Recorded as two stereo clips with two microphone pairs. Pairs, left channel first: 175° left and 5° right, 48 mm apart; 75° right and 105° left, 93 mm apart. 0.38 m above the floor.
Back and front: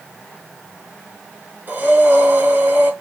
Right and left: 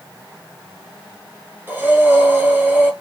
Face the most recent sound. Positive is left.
turn(degrees=35)